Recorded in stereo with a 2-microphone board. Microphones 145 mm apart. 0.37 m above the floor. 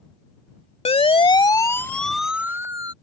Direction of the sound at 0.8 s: 45° left (ahead or behind).